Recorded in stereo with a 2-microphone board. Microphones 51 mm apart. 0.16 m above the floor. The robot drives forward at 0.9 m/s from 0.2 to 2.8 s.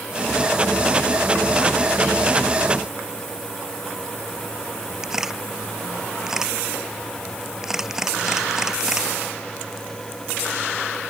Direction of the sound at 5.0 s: 10° right (ahead or behind).